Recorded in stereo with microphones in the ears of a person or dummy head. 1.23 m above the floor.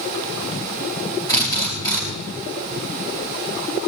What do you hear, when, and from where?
1.3 s a drill: 25° left (ahead or behind), 4.5 m